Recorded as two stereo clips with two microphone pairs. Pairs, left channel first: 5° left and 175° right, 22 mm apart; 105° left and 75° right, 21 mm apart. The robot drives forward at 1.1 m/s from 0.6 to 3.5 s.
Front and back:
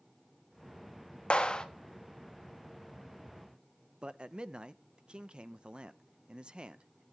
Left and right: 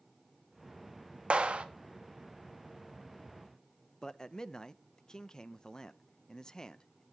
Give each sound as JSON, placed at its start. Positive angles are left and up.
{"t": 1.3, "sound": "a clap", "azimuth_deg": -40, "distance_m": 1.5}
{"t": 4.0, "sound": "a man speaking", "azimuth_deg": 160, "distance_m": 0.7}